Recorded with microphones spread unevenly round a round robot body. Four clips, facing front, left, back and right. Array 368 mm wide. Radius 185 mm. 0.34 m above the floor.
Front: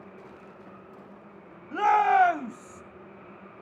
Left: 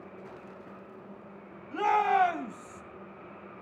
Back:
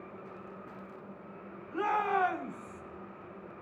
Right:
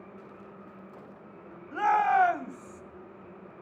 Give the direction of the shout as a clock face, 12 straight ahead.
12 o'clock.